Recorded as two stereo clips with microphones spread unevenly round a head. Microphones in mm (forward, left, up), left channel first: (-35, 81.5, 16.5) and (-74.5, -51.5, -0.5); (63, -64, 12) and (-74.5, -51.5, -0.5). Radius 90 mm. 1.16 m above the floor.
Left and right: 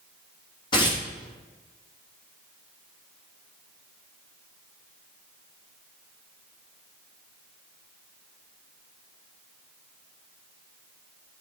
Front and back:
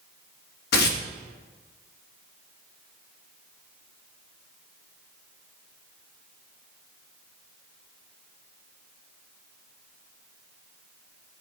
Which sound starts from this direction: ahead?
Tearing paper, at 0.7 s.